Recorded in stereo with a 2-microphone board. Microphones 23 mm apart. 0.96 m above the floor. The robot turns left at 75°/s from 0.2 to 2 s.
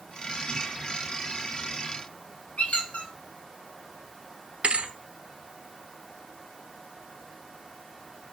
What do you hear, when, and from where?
2.6 s a squeak: 65° left (ahead or behind), 2.5 m
4.6 s a thud: 65° right (ahead or behind), 1.1 m